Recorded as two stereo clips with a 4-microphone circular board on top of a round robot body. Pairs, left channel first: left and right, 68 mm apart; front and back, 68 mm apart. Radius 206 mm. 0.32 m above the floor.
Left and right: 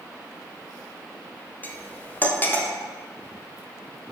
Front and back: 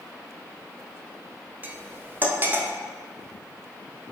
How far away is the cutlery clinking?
About 0.6 m.